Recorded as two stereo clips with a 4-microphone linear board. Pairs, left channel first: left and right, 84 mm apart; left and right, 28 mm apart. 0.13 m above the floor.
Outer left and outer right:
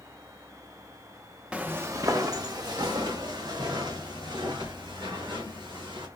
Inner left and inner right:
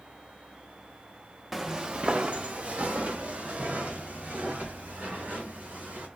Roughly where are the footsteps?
Centre.